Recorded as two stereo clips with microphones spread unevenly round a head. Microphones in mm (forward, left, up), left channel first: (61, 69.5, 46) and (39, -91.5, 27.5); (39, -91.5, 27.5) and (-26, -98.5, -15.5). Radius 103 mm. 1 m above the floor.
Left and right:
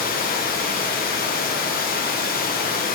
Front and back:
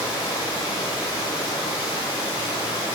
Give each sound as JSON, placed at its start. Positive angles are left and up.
{"t": 0.0, "sound": "running water", "azimuth_deg": 45, "distance_m": 1.3}